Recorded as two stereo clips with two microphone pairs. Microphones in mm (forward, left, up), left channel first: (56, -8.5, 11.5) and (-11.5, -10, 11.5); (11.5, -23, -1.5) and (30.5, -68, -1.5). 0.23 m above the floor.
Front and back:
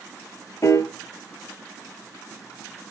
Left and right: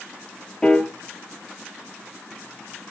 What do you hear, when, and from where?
0.6 s a piano: 40° left, 0.8 m